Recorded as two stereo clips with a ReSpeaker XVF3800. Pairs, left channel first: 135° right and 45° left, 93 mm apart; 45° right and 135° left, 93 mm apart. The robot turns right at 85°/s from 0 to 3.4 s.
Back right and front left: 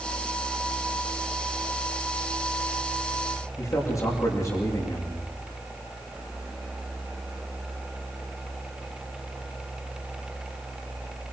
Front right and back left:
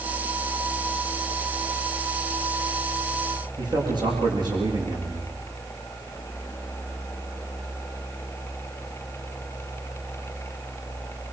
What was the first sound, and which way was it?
A man speaking, 175° left.